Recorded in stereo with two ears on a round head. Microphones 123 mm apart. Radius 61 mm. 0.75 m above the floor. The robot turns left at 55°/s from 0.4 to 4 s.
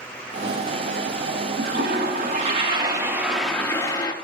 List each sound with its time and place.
1.6 s a toilet flushing: 80° right, 1.1 m; by 4.1 s 145° left, 1.1 m